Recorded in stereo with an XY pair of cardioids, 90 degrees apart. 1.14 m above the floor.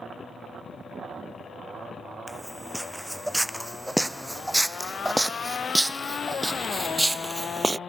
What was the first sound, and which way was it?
Footsteps, 5° right.